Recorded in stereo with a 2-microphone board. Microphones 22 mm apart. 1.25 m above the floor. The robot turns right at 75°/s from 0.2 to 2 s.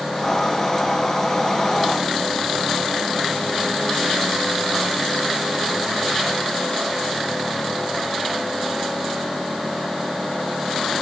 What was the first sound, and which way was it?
Only background noise.